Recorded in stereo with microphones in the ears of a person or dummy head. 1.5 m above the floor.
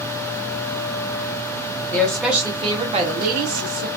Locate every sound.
1.9 s a woman speaking: 10° left (ahead or behind), 0.9 m; by 3.9 s 70° right (ahead or behind), 1.0 m